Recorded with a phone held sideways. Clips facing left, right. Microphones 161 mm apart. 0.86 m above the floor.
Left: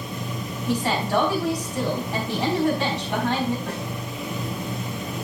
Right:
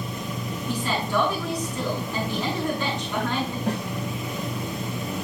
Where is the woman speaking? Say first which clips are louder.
Left 4 dB; 80° left, 4 m.